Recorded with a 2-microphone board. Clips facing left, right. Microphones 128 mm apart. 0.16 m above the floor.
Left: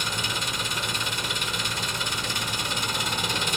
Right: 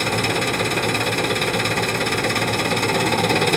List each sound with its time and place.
0.0 s an engine running: 70° right (ahead or behind), 1.1 m